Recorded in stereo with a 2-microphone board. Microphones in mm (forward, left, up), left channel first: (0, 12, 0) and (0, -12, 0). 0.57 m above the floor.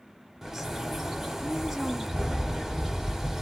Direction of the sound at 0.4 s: 15° right (ahead or behind).